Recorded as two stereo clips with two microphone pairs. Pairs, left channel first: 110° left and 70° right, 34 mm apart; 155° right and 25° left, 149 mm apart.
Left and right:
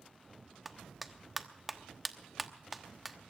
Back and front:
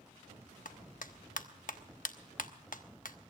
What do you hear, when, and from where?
0.7 s a clap: 165° right, 1.0 m